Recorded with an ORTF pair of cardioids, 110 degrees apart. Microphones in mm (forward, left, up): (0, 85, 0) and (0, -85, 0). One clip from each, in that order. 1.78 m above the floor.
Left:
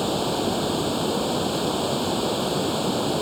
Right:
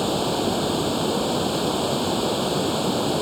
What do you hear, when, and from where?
0.0 s running water: 10° right